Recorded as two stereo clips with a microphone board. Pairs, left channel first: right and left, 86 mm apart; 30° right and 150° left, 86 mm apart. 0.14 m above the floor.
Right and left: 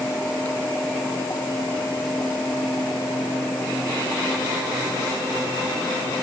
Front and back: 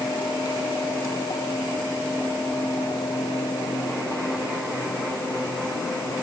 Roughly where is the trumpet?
No trumpet in this recording.